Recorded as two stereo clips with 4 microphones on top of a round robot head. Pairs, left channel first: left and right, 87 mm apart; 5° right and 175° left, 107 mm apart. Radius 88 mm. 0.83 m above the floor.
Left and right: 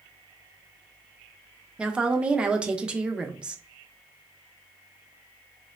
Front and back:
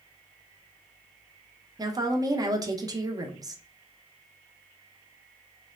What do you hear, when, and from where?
1.8 s a woman speaking: 165° right, 0.7 m